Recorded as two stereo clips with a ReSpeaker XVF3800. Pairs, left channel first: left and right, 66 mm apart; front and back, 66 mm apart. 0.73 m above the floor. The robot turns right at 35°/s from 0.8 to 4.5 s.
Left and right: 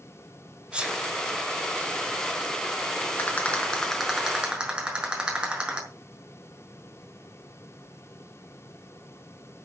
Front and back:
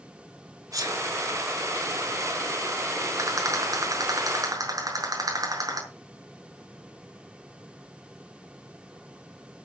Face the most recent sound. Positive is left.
turn(degrees=-165)